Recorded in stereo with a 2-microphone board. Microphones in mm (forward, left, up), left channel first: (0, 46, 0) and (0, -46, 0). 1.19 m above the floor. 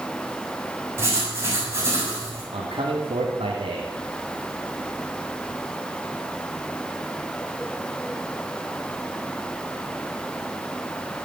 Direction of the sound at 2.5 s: 85° right.